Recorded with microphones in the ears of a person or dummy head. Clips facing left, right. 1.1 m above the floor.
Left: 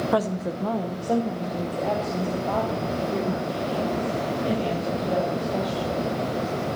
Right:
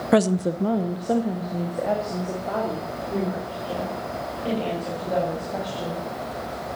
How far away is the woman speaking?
About 0.6 m.